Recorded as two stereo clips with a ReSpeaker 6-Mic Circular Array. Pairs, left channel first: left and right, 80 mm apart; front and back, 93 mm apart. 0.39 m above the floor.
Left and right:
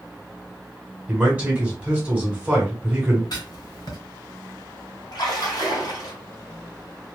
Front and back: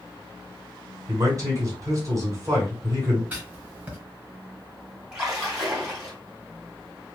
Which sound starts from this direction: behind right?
A man speaking, at 1.1 s.